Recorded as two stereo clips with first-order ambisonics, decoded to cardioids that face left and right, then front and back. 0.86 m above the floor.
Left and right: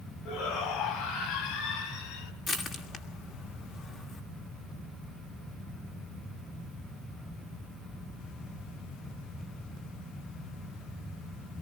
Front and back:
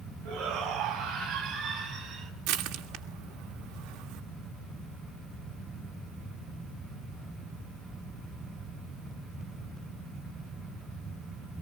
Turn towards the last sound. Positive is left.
turn(degrees=160)